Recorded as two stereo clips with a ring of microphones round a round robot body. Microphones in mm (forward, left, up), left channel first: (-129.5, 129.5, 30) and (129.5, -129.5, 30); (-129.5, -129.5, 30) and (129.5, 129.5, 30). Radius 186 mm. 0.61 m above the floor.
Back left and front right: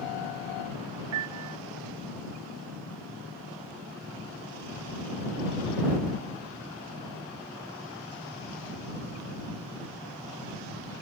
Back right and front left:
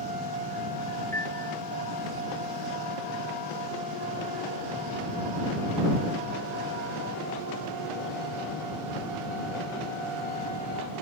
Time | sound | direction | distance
1.1 | a piano | 50° right | ?